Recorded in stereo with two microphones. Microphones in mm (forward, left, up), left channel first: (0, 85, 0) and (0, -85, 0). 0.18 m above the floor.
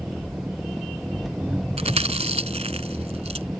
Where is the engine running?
Centre (ahead or behind).